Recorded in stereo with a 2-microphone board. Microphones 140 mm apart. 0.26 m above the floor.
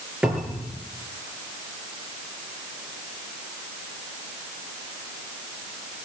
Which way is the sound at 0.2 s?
5° right (ahead or behind).